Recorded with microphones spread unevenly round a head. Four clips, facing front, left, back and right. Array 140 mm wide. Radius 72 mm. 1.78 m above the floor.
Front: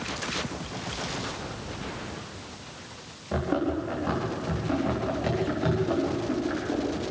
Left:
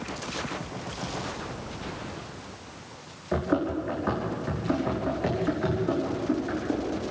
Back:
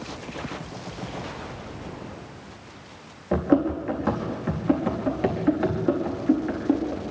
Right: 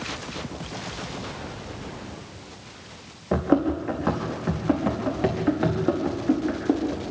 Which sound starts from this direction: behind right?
Running footsteps, at 3.3 s.